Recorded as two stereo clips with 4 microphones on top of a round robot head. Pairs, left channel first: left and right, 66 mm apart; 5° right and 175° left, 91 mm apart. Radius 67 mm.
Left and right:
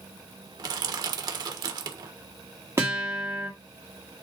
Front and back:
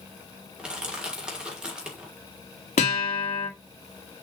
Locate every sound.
0.6 s crushing: 100° right, 1.5 m
2.8 s a guitar: 25° right, 2 m